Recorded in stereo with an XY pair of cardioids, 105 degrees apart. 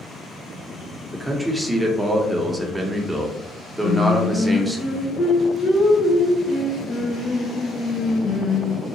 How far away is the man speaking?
About 0.7 m.